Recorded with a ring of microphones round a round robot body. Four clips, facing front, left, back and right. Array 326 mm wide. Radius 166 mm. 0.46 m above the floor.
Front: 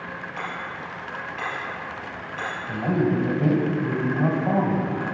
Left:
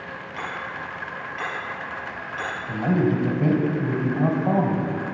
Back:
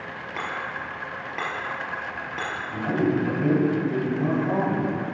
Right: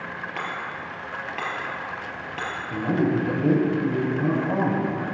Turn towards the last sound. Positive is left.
turn(degrees=60)